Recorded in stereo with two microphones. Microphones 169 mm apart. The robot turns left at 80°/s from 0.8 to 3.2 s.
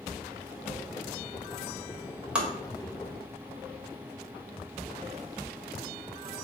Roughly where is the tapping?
Centre.